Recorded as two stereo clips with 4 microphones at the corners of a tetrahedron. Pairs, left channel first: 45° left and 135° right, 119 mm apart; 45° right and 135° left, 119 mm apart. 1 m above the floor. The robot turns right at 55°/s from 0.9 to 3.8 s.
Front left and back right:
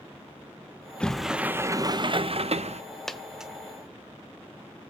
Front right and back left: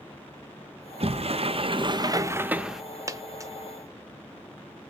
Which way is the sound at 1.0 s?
125° left.